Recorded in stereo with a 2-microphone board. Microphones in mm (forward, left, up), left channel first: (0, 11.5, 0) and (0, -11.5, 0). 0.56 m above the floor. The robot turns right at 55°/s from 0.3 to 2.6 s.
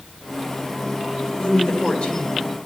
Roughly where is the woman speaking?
Left.